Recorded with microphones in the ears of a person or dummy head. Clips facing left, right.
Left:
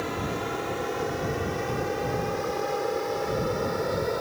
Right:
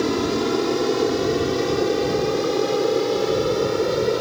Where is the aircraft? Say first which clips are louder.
Right 10 dB; 55° right (ahead or behind); by 4.2 s 45° right (ahead or behind).